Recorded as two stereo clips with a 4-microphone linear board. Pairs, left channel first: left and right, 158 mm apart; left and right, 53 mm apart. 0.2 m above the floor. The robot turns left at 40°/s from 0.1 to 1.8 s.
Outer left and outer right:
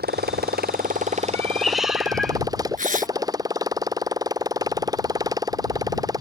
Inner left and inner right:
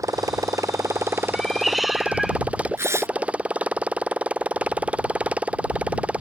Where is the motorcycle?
90° right; by 6.2 s 155° right.